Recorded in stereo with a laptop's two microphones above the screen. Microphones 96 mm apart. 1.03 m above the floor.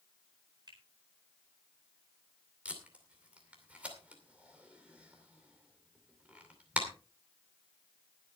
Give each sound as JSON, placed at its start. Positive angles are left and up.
{"t": 0.7, "sound": "a finger snap", "side_deg": -45, "distance_m": 4.5}
{"t": 2.6, "sound": "tape being pulled", "side_deg": -15, "distance_m": 2.5}